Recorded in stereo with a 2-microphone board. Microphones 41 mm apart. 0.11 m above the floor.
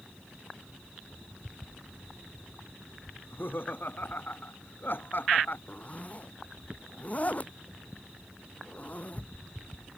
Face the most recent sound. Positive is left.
turn(degrees=35)  # may be behind; listen again after turning